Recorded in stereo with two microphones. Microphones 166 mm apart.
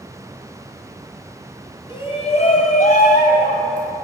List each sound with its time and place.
1.9 s a shout: 30° left (ahead or behind), 2.5 m; by 3.9 s 55° left (ahead or behind), 2.5 m